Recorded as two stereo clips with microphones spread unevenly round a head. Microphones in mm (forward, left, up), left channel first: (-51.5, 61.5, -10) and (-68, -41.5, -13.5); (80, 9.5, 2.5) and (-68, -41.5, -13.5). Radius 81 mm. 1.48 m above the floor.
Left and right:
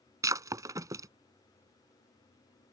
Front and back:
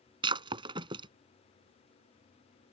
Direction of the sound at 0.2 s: 120° right.